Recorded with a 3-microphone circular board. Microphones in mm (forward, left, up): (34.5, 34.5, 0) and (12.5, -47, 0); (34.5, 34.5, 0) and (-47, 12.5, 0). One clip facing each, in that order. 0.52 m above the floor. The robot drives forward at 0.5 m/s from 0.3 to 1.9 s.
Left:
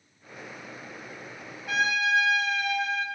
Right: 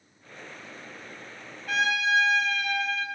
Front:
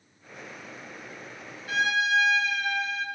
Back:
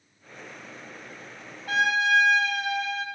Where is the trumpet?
155° left, 2.5 m; by 3.0 s 160° left, 3 m.